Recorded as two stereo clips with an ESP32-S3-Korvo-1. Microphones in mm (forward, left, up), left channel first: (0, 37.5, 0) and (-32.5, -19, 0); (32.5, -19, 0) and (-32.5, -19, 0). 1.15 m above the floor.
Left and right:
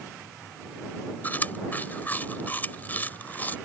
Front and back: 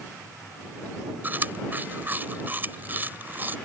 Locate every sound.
1.2 s chewing: 120° left